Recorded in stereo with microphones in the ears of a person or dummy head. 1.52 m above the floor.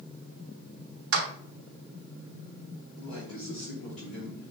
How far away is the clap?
About 0.8 m.